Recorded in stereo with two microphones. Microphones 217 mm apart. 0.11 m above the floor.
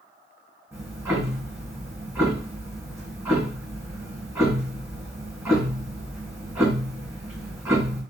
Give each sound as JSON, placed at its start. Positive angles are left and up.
{"t": 0.7, "sound": "ticking", "side_deg": -10, "distance_m": 3.0}